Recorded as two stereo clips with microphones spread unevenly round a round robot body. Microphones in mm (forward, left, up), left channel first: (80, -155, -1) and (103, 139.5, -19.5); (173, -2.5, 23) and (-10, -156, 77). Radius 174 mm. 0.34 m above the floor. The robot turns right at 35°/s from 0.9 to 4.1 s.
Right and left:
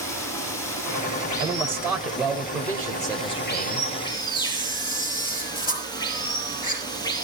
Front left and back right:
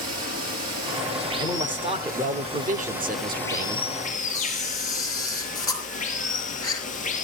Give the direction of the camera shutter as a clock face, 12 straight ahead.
1 o'clock.